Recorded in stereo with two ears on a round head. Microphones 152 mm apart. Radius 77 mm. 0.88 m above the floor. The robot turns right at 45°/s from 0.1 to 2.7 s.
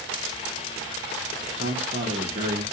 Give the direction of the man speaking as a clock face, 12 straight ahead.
3 o'clock.